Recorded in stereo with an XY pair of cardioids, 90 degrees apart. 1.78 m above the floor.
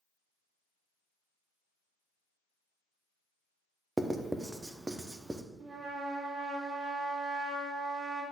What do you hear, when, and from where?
4.0 s writing: 15° right, 0.8 m
5.6 s a trumpet: 45° right, 3.5 m